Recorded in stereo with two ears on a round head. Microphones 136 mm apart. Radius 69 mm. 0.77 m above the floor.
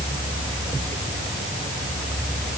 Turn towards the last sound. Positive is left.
No sound to turn to.